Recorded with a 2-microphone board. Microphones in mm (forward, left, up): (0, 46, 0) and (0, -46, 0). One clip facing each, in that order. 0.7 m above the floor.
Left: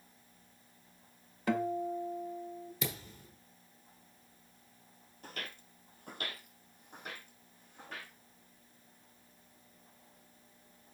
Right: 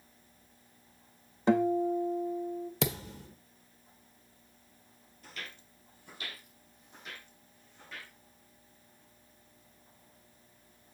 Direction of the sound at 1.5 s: 25° right (ahead or behind).